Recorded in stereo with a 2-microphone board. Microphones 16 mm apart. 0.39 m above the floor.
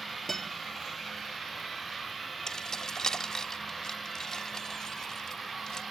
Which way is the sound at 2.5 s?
45° left (ahead or behind).